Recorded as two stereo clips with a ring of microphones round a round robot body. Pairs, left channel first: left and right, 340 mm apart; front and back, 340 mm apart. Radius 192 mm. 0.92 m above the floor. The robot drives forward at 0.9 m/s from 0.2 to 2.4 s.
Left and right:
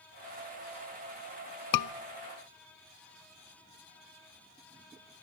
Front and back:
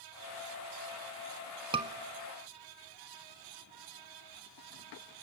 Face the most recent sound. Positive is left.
turn(degrees=145)